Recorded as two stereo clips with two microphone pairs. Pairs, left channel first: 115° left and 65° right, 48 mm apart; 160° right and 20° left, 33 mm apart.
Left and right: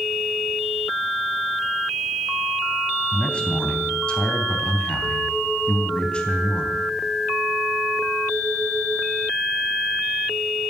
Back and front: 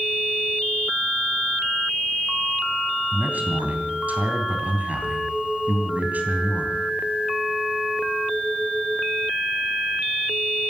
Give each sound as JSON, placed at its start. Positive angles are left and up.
{"t": 3.1, "sound": "a man speaking", "azimuth_deg": 50, "distance_m": 3.0}